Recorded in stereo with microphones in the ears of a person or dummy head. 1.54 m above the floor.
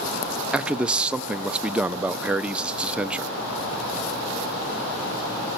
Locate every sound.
0.5 s a man speaking: 15° right (ahead or behind), 0.6 m